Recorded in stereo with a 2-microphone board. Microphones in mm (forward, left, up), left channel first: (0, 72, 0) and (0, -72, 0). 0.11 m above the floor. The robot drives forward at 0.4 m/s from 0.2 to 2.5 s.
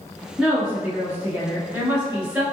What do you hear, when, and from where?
0.4 s a woman speaking: 10° right (ahead or behind), 1.1 m